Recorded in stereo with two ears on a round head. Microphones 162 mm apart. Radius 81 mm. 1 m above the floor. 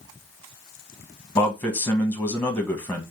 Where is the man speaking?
10° left (ahead or behind), 1.2 m.